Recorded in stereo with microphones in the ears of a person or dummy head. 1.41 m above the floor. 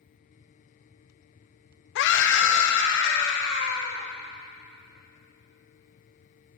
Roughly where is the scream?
Left.